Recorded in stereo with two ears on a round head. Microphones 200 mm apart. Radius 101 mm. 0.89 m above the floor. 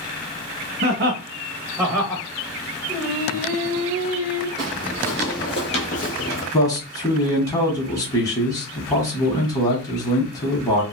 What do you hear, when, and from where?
0.8 s laughter: 45° right (ahead or behind), 1.3 m; by 2.2 s 20° left (ahead or behind), 1.1 m
2.9 s singing: 5° right (ahead or behind), 1.1 m
4.6 s footsteps: centre (ahead or behind), 1.6 m; by 6.4 s 45° left (ahead or behind), 1.2 m
6.5 s a man speaking: 15° left (ahead or behind), 0.9 m